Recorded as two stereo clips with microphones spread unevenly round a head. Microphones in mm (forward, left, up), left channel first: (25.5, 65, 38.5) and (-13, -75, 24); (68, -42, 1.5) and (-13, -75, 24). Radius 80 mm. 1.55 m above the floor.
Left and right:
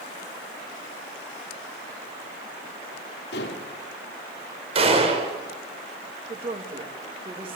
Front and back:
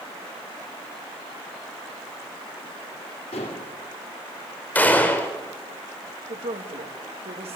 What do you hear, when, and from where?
3.3 s dishes clattering: 60° left, 3 m
4.8 s a gunshot: 50° right, 4.5 m
6.3 s a woman speaking: 160° right, 3 m